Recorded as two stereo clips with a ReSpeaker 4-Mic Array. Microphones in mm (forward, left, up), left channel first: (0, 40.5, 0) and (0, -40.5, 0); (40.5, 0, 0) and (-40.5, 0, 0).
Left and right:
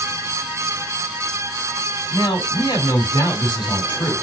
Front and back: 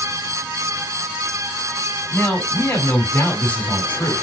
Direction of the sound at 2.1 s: 70° left.